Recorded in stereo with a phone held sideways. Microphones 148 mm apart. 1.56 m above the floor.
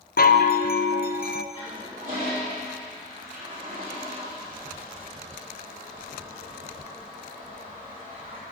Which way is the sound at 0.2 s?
70° left (ahead or behind).